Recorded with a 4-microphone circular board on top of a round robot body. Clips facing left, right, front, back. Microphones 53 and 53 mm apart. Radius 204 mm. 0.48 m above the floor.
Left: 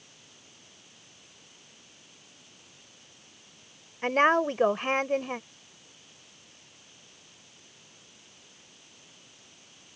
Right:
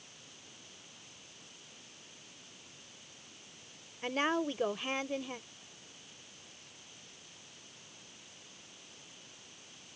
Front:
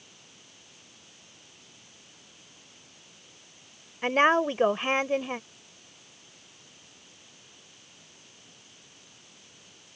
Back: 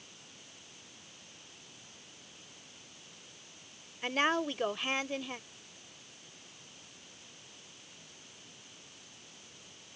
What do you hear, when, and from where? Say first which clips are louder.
4.0 s a woman speaking: left 10 dB, front 8 dB; 55° left